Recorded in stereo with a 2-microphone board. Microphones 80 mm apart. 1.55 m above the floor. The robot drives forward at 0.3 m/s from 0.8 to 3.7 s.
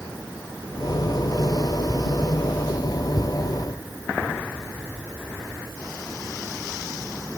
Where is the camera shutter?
No camera shutter in this recording.